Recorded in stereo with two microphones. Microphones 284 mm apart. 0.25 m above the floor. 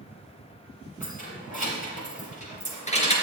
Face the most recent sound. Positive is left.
turn(degrees=20)  # may be behind; listen again after turning